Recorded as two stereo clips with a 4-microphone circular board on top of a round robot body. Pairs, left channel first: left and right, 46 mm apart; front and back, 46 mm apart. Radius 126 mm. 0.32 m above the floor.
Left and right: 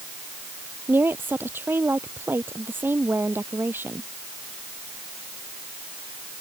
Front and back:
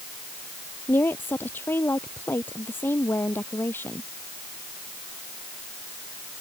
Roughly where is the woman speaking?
Ahead right.